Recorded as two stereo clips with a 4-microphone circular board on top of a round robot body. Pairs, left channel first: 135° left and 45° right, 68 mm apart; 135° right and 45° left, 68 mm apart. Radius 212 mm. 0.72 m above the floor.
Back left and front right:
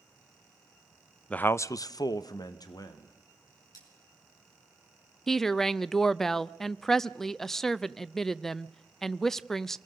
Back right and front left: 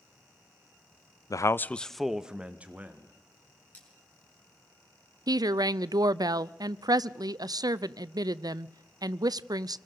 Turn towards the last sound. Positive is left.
turn(degrees=50)